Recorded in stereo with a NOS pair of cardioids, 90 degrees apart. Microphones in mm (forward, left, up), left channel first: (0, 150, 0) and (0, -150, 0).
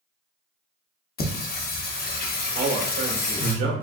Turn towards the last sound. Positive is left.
turn(degrees=-55)